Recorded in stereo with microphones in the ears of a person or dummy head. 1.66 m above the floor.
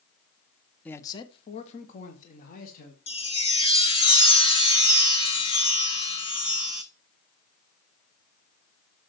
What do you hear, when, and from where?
0.8 s a man speaking: 10° left (ahead or behind), 0.5 m; by 3.0 s 55° left (ahead or behind), 1.9 m
3.1 s a chime: 40° left (ahead or behind), 0.7 m